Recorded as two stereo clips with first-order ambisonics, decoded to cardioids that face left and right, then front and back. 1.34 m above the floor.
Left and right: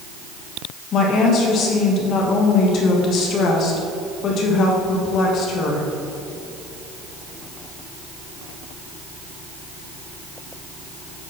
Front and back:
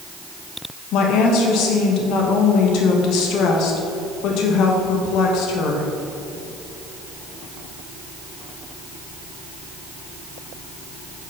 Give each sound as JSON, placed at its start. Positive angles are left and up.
{"t": 0.9, "sound": "a woman speaking", "azimuth_deg": 40, "distance_m": 1.5}